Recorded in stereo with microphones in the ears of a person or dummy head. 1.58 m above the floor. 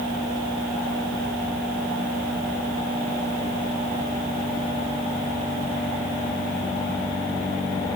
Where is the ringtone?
I don't hear a ringtone.